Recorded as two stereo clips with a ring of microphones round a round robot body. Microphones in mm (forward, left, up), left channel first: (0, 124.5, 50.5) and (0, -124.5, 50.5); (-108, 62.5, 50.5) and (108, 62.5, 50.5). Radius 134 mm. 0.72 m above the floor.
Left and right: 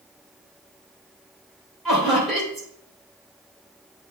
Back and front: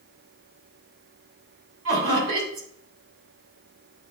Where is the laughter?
Straight ahead, 3 m.